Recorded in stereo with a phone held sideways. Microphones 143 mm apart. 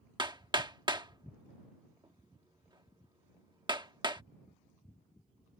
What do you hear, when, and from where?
0.2 s hammering: 35° right (ahead or behind)